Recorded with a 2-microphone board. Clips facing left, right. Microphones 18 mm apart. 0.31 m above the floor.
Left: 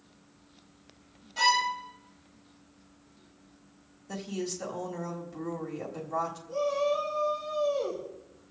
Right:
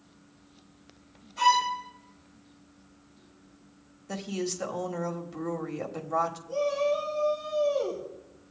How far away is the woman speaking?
About 1.5 m.